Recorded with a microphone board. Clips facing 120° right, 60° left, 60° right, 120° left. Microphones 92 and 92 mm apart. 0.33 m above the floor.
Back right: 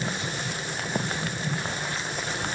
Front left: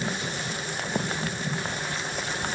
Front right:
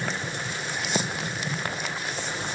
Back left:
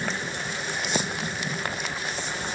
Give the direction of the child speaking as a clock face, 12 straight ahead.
No child speaking in this recording.